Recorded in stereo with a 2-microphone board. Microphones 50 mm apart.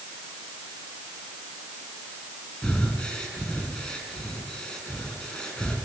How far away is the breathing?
About 5 m.